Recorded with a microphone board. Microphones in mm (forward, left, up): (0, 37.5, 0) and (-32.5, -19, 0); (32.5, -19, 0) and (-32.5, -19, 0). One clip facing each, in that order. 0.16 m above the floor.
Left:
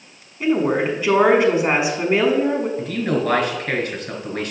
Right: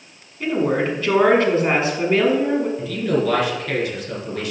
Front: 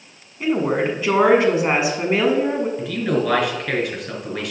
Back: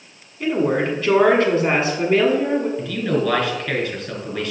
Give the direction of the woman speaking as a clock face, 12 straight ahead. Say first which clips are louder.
Left 1 dB, even; 11 o'clock.